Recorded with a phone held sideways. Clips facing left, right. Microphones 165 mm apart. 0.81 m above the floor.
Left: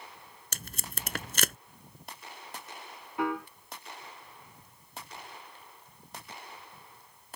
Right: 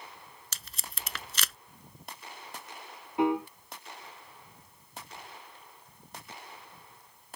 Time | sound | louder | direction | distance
0.5 | tape being pulled | left 6 dB | 55° left (ahead or behind) | ?
3.2 | a piano | right 5 dB | 25° right (ahead or behind) | ?